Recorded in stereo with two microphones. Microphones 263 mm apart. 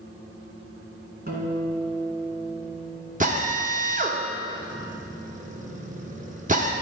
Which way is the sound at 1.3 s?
35° right (ahead or behind).